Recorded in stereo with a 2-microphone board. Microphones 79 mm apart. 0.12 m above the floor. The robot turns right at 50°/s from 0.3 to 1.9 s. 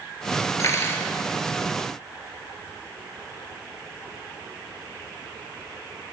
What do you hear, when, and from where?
0.6 s cutlery clinking: 40° left (ahead or behind), 1.3 m; by 1.1 s 25° left (ahead or behind), 1.3 m